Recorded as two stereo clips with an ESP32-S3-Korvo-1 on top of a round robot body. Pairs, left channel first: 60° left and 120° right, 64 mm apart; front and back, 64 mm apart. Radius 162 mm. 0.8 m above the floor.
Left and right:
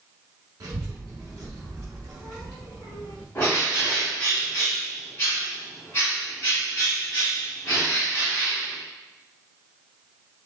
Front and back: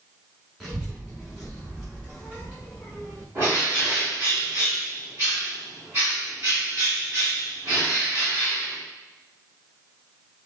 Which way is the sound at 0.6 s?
90° right.